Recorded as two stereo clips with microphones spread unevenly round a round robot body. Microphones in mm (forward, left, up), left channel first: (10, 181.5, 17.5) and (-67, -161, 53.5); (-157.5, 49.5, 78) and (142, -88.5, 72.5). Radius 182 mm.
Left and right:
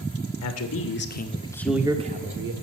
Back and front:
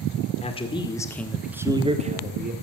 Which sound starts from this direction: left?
A man speaking, at 0.4 s.